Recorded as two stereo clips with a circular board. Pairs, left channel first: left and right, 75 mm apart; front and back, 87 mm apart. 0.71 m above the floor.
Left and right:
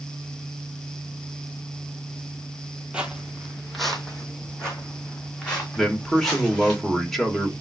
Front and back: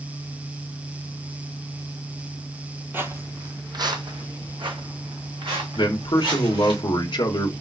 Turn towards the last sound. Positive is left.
turn(degrees=5)